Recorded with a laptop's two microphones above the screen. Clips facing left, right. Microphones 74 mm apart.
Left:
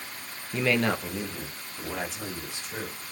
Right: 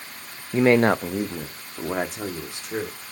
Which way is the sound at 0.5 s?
30° right (ahead or behind).